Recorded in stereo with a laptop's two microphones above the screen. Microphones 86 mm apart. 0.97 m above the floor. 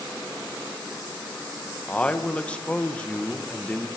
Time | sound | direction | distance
1.9 | a man speaking | 15° left (ahead or behind) | 0.9 m